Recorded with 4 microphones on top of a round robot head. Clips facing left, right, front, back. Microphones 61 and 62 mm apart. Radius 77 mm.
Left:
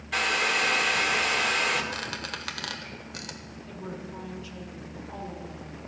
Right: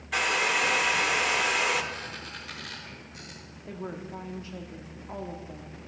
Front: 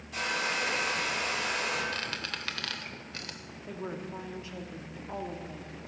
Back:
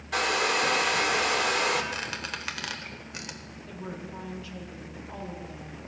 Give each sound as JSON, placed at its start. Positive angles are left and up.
{"t": 0.1, "sound": "a hair dryer", "azimuth_deg": -175, "distance_m": 1.1}
{"t": 1.9, "sound": "a squeak", "azimuth_deg": 100, "distance_m": 1.1}
{"t": 3.7, "sound": "a woman speaking", "azimuth_deg": -55, "distance_m": 1.6}